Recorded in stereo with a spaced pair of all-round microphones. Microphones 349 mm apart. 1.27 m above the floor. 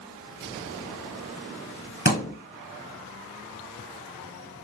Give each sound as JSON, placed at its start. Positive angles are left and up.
{"t": 2.0, "sound": "a thud", "side_deg": 25, "distance_m": 1.7}